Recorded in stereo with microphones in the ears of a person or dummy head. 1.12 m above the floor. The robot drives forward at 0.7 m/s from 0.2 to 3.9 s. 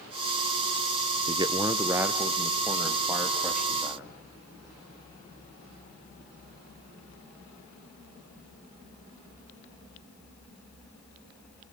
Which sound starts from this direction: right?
A man speaking, at 1.3 s.